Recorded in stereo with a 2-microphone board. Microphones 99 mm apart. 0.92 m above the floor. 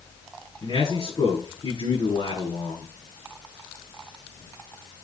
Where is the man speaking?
45° left (ahead or behind), 10 m.